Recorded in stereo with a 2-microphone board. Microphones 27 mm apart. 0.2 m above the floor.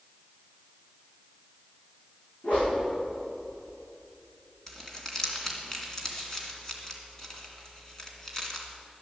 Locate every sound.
2.4 s a whoosh: 60° left (ahead or behind), 6 m
4.7 s crumpling: 15° left (ahead or behind), 2.5 m